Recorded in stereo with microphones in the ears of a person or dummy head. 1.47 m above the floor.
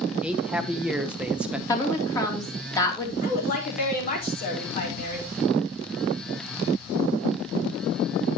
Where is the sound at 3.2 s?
45° left (ahead or behind), 4 m.